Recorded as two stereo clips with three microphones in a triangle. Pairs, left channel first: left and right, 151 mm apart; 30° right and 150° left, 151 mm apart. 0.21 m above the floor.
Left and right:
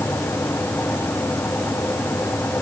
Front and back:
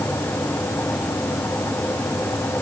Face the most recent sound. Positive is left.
No sound to turn to.